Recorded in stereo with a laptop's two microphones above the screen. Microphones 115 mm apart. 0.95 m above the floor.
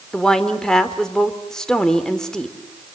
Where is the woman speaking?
5° left (ahead or behind), 3 m.